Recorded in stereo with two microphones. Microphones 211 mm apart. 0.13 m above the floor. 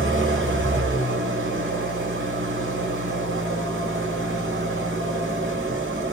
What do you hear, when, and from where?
0.0 s an engine running: 65° right (ahead or behind), 1.0 m